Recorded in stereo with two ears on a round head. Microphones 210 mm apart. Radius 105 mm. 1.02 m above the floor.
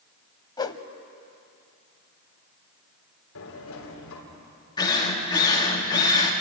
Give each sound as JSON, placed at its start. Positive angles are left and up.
{"t": 0.6, "sound": "a whoosh", "side_deg": 20, "distance_m": 0.8}
{"t": 3.4, "sound": "a sliding door", "side_deg": 65, "distance_m": 3.5}
{"t": 4.8, "sound": "a drill", "side_deg": 20, "distance_m": 2.5}